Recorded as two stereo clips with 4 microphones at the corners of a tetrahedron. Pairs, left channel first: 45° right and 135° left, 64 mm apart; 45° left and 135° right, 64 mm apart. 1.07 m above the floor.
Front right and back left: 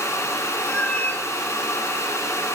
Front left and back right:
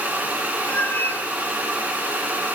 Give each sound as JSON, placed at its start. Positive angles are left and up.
{"t": 0.7, "sound": "a cat meowing", "azimuth_deg": 10, "distance_m": 0.9}